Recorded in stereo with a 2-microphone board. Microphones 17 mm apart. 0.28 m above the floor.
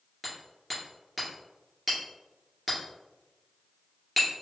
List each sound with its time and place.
0.2 s hammering: 5° left (ahead or behind), 1.7 m